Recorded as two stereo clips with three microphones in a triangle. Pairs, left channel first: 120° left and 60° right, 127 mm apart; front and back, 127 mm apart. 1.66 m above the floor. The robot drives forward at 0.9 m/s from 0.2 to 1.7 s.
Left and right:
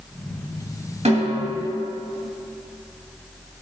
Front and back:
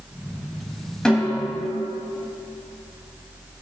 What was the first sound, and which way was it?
A snare drum, 85° right.